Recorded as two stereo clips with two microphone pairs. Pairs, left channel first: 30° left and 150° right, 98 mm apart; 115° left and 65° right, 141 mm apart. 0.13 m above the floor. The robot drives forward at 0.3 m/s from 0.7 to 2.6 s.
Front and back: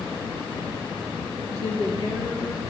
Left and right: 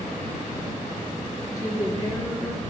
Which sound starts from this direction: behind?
A woman speaking, at 1.5 s.